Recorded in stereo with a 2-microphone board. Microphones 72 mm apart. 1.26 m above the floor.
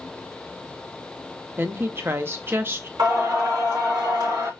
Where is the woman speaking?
35° right (ahead or behind), 0.6 m.